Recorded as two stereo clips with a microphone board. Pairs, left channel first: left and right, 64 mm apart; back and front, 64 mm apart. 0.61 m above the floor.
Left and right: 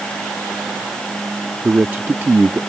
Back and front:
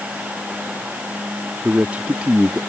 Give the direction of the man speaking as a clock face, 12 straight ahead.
2 o'clock.